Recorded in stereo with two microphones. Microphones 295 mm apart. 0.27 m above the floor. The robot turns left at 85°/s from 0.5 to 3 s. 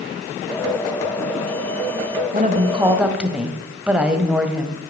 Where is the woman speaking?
115° right, 1.5 m; by 4.8 s 175° right, 1.5 m.